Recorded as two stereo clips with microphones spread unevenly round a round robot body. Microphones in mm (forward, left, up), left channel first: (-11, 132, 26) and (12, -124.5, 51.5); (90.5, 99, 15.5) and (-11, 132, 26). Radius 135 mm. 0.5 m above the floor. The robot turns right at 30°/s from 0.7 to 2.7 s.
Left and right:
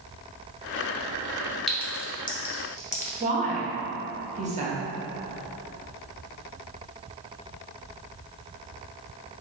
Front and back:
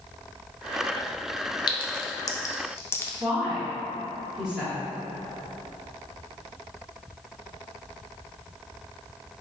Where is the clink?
10° left, 0.6 m; by 3.1 s 40° left, 0.6 m.